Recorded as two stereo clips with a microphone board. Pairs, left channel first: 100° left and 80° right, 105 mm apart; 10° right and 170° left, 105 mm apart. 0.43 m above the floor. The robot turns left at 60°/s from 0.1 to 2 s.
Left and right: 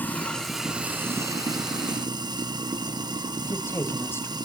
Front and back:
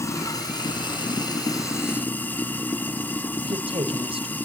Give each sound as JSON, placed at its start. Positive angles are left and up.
{"t": 0.0, "sound": "running water", "azimuth_deg": 35, "distance_m": 0.9}
{"t": 3.4, "sound": "a woman speaking", "azimuth_deg": 165, "distance_m": 1.5}